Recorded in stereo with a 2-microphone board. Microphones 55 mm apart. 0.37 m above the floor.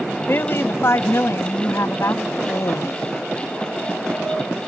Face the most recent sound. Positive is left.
turn(degrees=60)  # may be behind; listen again after turning